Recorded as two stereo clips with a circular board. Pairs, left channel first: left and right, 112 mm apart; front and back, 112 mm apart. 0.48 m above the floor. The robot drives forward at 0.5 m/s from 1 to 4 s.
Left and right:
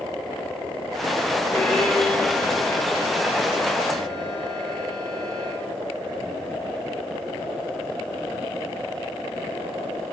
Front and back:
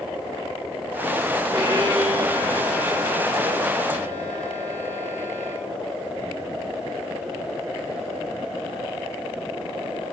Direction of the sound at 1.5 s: 165° left.